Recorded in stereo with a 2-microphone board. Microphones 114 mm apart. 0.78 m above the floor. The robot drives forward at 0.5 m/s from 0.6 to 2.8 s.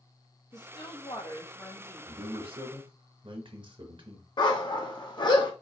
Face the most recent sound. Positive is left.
turn(degrees=40)  # may be behind; listen again after turning